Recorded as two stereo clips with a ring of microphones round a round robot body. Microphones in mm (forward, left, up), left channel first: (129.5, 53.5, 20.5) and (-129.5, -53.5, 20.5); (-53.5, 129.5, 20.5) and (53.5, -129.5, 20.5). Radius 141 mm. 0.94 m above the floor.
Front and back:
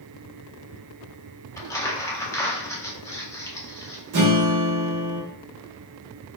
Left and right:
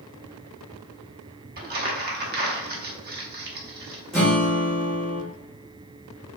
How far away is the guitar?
About 1.6 m.